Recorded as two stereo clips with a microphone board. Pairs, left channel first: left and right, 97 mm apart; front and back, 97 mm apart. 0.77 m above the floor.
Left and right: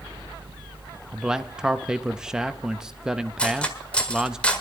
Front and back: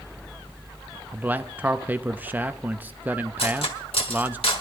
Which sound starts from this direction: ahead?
Cutlery clinking, at 3.4 s.